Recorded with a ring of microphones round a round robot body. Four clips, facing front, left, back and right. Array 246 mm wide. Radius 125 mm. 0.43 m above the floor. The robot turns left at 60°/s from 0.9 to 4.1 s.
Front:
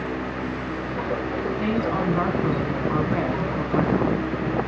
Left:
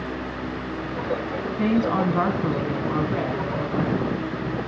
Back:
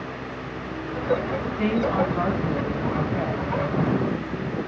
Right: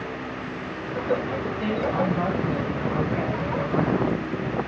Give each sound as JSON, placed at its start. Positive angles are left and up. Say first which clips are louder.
{"t": 1.6, "sound": "a woman speaking", "louder": "left 4 dB, back 3 dB", "azimuth_deg": 110, "distance_m": 4.0}